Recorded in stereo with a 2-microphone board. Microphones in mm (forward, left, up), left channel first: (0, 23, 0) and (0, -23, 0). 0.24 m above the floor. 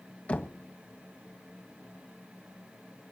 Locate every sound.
0.3 s knocking: 25° left (ahead or behind), 1.6 m